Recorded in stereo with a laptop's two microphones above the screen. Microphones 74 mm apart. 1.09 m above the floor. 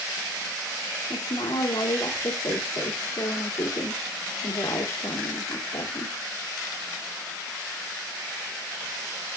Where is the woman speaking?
85° left, 2 m.